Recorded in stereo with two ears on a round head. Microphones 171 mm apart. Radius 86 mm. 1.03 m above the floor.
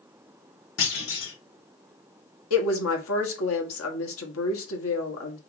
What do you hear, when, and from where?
0.8 s a clunk: 75° left (ahead or behind), 1.8 m
2.5 s a woman speaking: 80° left, 1.5 m